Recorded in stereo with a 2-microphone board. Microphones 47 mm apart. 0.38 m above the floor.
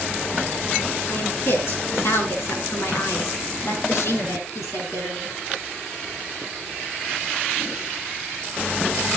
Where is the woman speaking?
55° left (ahead or behind), 4.5 m; by 5.4 s 80° left, 5 m.